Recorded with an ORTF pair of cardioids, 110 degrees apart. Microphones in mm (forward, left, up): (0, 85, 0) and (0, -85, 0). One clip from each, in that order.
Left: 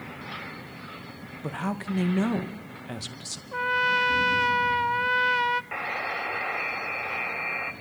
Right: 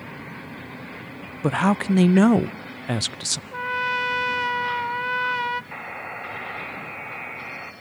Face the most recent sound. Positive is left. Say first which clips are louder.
# left 4 dB
turn(degrees=20)